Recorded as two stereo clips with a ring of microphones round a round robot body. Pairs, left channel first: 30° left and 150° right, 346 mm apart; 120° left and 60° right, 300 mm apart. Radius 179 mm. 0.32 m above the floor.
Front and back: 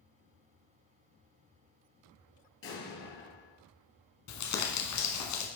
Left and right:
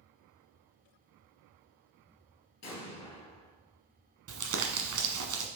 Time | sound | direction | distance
2.6 | an explosion | 85° left | 2 m
4.3 | crumpling | 15° right | 1.3 m